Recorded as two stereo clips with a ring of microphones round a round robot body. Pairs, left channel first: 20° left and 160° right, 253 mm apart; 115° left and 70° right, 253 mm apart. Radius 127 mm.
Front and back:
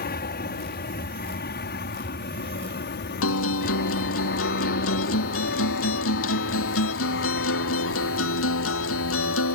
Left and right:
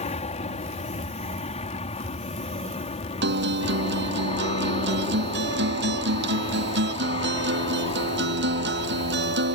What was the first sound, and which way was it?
An aircraft, 60° left.